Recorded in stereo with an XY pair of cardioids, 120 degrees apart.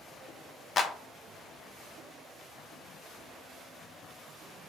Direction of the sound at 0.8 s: 40° left.